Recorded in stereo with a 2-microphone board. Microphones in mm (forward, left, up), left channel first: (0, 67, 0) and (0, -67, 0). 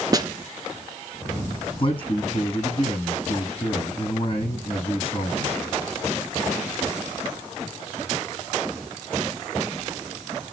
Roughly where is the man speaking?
Left.